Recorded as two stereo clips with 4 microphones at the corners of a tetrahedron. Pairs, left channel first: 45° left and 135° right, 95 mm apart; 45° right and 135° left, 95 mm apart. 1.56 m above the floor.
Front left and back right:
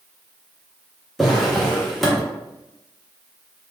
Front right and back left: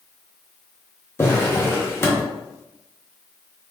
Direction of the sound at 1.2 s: 45° right.